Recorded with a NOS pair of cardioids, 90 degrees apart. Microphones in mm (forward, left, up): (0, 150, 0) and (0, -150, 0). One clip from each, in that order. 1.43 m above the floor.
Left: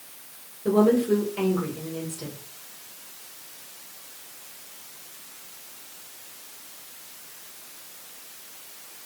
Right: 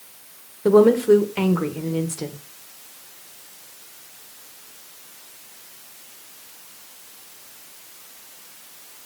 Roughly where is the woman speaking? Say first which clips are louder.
Right 7 dB; ahead right.